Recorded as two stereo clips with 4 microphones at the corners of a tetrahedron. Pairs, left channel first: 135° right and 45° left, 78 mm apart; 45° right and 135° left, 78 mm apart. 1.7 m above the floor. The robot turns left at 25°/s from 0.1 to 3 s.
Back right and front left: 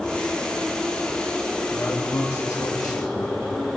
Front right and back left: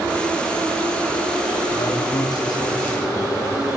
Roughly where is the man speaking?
Ahead right.